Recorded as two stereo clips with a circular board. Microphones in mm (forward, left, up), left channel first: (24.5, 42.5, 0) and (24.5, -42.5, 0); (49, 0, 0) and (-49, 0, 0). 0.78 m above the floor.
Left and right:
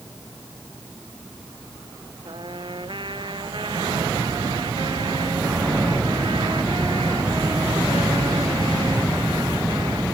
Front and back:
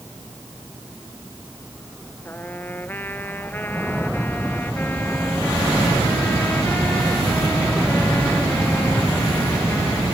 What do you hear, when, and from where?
2.2 s a trumpet: 70° right